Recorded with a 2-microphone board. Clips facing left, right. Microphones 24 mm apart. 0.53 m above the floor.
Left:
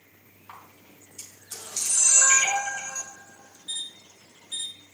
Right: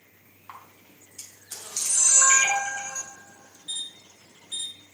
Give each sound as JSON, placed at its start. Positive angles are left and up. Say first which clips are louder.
{"t": 0.5, "sound": "a camera shutter", "louder": "right 1 dB", "side_deg": -15, "distance_m": 3.5}